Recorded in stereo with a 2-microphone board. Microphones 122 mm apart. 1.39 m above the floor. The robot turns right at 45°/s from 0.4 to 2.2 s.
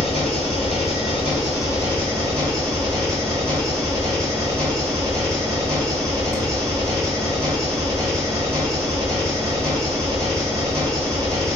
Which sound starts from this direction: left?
An engine running, at 0.0 s.